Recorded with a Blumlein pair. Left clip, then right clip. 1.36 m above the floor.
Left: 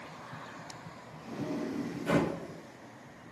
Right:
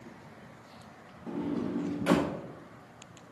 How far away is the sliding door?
About 1.7 m.